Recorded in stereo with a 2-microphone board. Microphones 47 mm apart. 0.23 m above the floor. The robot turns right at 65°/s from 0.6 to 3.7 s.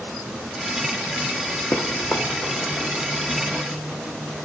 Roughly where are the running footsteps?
Left.